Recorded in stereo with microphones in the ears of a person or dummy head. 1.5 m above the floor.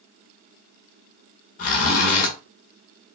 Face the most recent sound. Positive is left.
turn(degrees=45)  # may be behind; listen again after turning